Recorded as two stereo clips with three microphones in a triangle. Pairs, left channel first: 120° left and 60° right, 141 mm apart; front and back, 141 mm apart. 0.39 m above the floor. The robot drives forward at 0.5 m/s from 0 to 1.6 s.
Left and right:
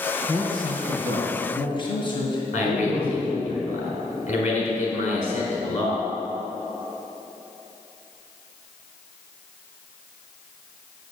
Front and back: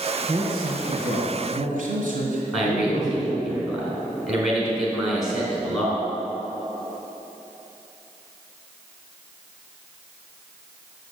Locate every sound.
0.3 s a man speaking: 170° left, 3.5 m; by 3.5 s 175° left, 4 m
2.5 s a man speaking: 95° left, 4.5 m